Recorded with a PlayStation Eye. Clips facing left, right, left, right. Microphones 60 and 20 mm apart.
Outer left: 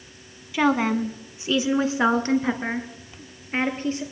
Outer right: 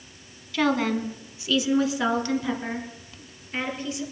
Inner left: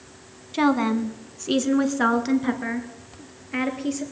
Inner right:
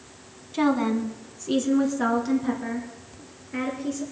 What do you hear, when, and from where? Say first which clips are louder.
0.5 s a woman speaking: outer left 2 dB, inner left 2 dB; 20° left (ahead or behind), 1.1 m; by 4.0 s 40° left (ahead or behind), 2.5 m